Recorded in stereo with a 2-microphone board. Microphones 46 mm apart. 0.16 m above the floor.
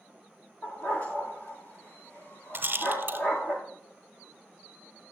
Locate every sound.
0.6 s a dog barking: 45° left (ahead or behind), 7.5 m
2.5 s a rattle: 45° right (ahead or behind), 1.4 m